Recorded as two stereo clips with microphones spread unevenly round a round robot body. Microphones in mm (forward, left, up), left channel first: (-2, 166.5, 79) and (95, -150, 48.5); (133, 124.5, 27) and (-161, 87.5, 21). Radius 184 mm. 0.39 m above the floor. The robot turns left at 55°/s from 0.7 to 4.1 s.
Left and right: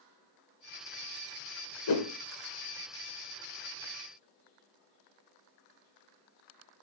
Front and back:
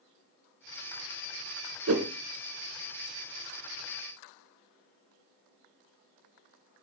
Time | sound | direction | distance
1.9 | a whoosh | 145° left | 1.0 m